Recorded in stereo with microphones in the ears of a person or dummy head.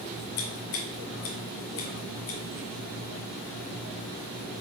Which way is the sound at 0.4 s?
60° left (ahead or behind).